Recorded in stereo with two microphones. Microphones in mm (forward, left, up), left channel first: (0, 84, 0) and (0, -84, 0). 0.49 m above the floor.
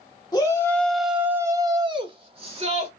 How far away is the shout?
About 0.9 m.